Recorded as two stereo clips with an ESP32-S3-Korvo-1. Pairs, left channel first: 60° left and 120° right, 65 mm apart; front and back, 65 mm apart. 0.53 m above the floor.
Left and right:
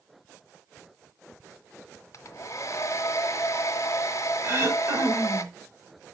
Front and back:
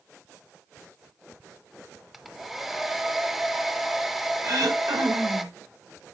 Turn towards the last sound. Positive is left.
turn(degrees=-160)